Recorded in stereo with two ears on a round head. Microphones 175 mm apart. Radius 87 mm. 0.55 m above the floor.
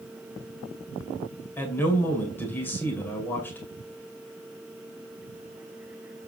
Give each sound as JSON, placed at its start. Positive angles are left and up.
{"t": 1.6, "sound": "a man speaking", "side_deg": 10, "distance_m": 2.5}